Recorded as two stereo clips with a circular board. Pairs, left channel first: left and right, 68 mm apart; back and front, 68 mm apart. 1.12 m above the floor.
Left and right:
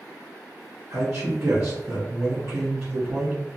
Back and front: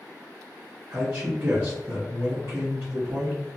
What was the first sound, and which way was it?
A man speaking, 50° right.